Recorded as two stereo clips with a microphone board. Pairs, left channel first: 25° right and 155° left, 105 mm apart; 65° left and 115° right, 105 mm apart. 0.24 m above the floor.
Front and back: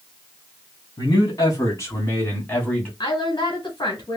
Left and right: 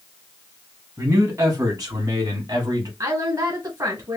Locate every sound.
1.0 s a man speaking: 60° right, 2.5 m; by 2.9 s 95° right, 2 m
3.0 s a woman speaking: 60° right, 2.5 m